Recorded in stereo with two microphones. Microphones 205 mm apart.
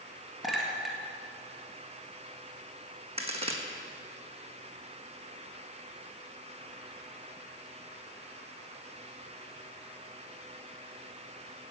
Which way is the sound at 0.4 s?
Centre (ahead or behind).